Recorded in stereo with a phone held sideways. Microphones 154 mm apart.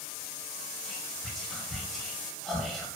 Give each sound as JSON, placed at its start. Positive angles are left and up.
{"t": 0.8, "sound": "whispering", "side_deg": 0, "distance_m": 0.8}